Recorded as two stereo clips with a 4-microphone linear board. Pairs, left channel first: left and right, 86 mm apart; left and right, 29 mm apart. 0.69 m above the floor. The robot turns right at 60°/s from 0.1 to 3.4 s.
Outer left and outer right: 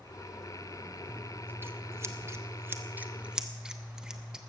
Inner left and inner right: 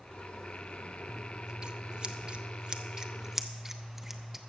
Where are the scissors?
155° right, 0.9 m; by 4.4 s 15° right, 0.9 m.